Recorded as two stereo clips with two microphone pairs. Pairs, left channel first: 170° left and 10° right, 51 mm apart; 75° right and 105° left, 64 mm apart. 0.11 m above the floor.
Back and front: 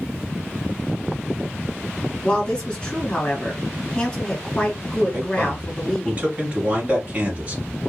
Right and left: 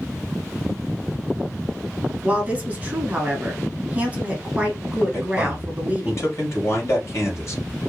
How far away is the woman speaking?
About 1.7 m.